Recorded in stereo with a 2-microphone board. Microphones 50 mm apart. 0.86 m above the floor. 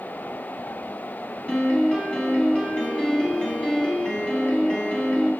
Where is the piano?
15° left (ahead or behind), 3 m.